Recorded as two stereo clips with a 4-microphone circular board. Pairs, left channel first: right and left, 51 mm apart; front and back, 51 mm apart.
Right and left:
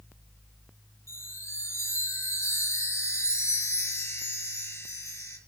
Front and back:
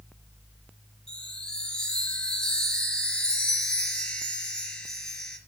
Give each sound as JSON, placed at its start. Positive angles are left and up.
{"t": 1.1, "sound": "a chime", "azimuth_deg": -75, "distance_m": 3.5}